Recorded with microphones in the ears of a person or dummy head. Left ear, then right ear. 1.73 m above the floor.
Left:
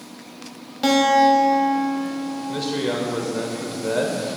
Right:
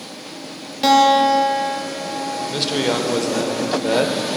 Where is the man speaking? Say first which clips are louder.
Right 4 dB; 25° right (ahead or behind), 0.6 m.